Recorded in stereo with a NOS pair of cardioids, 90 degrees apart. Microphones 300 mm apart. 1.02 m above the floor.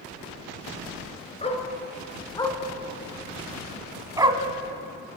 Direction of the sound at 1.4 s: 20° left.